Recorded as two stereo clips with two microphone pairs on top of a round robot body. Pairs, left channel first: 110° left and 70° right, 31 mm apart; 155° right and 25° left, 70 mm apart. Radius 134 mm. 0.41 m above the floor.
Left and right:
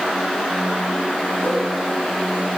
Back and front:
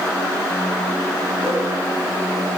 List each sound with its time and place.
1.4 s a whoosh: 125° left, 5 m